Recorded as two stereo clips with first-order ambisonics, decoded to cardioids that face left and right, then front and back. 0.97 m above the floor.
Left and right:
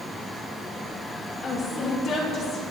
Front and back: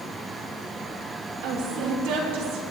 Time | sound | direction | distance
1.4 | a woman speaking | 155° left | 2.5 m